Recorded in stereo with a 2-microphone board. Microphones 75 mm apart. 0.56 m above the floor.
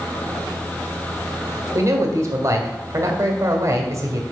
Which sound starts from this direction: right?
A man speaking, at 1.8 s.